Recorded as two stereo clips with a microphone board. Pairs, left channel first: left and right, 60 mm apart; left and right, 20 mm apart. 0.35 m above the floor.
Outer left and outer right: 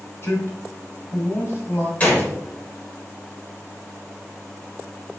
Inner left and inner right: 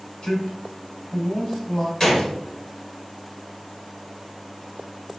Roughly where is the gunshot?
Left.